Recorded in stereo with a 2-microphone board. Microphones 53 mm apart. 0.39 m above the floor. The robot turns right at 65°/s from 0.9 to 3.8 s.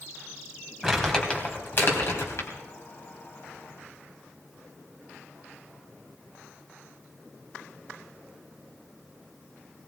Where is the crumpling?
5° right (ahead or behind), 3 m; by 2.5 s 65° left (ahead or behind), 3 m.